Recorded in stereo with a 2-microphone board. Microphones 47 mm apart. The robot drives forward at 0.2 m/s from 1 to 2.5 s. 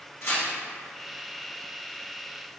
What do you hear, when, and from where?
0.2 s tearing paper: 70° left (ahead or behind), 1.4 m